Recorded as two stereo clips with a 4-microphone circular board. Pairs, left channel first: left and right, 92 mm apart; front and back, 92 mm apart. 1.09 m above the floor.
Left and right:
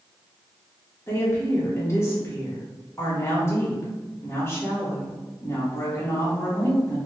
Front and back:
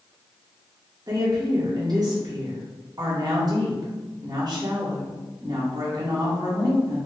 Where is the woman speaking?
150° left, 1.3 m.